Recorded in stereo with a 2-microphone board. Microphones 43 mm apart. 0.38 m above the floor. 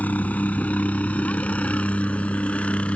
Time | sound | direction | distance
0.0 | a helicopter | 40° left (ahead or behind) | ?